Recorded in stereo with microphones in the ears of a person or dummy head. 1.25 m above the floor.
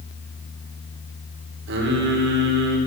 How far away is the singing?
About 4 m.